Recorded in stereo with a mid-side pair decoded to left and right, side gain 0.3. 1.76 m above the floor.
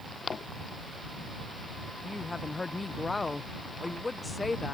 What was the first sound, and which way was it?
A woman speaking, 35° left.